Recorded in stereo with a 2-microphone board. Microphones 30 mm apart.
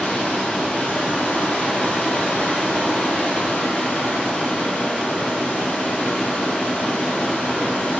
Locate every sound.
0.0 s running water: 75° left (ahead or behind), 7 m